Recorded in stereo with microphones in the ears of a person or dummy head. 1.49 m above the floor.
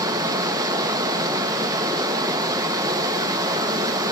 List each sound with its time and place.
0.0 s running water: 25° right (ahead or behind), 1.1 m